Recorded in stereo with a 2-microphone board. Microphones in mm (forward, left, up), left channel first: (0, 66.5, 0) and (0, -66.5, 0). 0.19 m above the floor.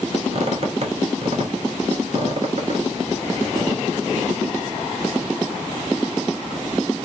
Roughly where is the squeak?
Right.